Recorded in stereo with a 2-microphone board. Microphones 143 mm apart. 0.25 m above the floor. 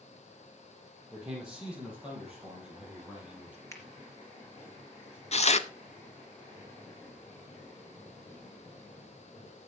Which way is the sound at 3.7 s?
20° left (ahead or behind).